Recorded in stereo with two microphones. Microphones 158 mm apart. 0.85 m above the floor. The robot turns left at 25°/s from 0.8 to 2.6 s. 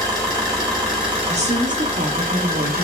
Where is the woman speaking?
45° right, 1.0 m; by 2.9 s 80° right, 1.0 m.